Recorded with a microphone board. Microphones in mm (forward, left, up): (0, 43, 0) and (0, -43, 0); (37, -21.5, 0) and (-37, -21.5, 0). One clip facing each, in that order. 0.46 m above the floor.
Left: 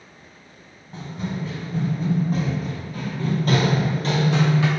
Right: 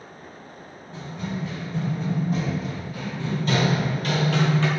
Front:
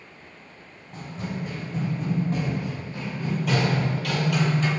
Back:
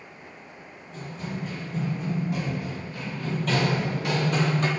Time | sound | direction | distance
0.9 | running footsteps | 40° left | 1.7 m